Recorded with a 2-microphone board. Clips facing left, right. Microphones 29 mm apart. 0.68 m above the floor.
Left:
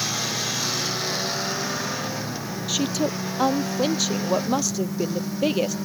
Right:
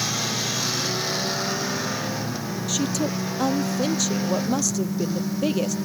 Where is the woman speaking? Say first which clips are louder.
Left 1 dB; 20° left (ahead or behind).